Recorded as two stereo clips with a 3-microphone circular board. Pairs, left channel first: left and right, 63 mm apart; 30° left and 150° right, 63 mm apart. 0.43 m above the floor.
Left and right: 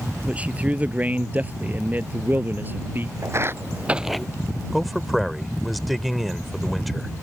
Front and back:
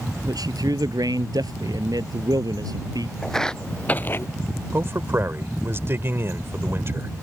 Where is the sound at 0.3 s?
160° right; by 3.1 s 145° right.